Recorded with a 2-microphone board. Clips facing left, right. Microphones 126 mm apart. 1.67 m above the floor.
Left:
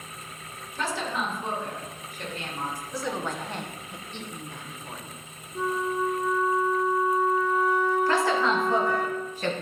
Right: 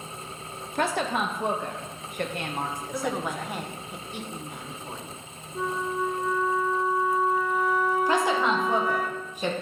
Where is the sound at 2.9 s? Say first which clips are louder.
Right 2 dB; 10° right (ahead or behind), 0.8 m.